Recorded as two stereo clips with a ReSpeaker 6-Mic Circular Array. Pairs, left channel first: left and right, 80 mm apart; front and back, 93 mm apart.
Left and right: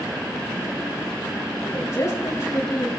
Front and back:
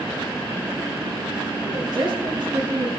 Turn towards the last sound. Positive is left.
turn(degrees=145)